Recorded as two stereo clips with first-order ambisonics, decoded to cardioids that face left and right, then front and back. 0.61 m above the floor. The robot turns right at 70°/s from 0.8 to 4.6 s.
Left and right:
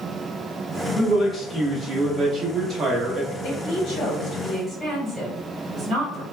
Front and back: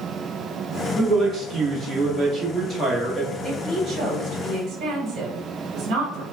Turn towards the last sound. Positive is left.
turn(degrees=180)